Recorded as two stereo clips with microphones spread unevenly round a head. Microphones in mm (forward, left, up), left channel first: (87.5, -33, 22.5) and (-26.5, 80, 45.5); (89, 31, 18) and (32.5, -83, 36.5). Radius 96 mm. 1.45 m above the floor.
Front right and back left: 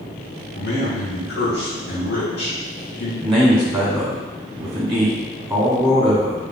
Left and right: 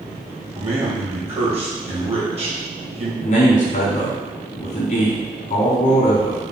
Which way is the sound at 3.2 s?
60° left.